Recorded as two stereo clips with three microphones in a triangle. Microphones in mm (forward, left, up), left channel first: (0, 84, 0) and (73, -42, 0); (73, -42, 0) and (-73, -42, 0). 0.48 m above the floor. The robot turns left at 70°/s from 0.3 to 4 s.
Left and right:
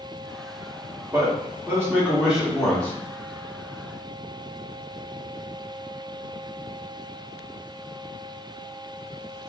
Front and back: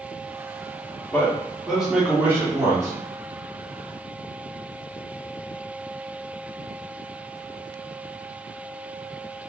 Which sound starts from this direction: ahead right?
A man speaking, at 1.1 s.